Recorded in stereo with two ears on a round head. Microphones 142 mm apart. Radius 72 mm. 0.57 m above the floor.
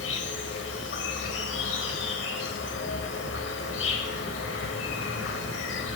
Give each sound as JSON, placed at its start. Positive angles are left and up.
{"t": 0.0, "sound": "an insect", "side_deg": 85, "distance_m": 1.1}